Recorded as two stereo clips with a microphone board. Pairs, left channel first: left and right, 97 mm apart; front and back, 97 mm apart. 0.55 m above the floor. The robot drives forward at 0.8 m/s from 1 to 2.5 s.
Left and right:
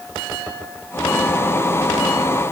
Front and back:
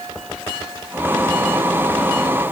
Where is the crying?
I don't hear crying.